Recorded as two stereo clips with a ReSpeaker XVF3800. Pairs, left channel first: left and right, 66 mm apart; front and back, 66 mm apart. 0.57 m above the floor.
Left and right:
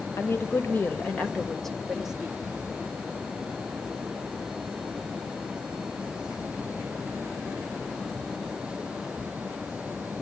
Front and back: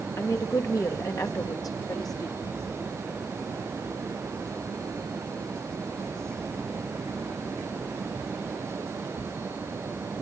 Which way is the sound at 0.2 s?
40° left.